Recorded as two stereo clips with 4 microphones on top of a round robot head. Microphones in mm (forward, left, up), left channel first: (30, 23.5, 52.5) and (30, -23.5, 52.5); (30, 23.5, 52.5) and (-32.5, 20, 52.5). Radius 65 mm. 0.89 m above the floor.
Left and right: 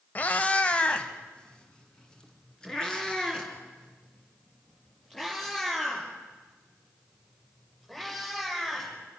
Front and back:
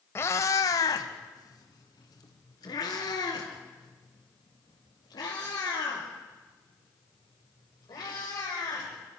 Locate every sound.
0.1 s a cat meowing: 45° left, 0.8 m; by 8.9 s 10° left, 8.5 m